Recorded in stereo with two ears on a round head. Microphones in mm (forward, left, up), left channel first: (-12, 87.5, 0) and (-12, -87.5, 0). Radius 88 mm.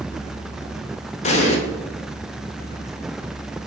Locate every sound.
1.2 s an explosion: 35° left (ahead or behind), 0.6 m